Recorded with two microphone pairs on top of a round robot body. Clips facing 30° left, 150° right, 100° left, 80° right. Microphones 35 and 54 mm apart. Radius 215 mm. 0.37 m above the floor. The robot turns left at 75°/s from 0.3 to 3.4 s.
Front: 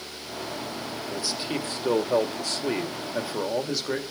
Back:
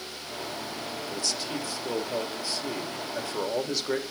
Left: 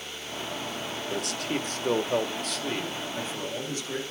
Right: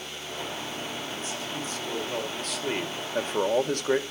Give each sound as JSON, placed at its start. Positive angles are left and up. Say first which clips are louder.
{"t": 1.1, "sound": "a man speaking", "louder": "front 3 dB, left 4 dB", "azimuth_deg": 110, "distance_m": 2.5}